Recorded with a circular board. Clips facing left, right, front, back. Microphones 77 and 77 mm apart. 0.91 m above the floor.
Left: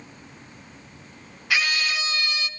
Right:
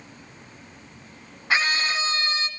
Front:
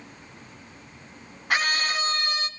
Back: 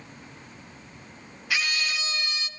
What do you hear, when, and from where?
1.5 s a scream: 35° right, 1.5 m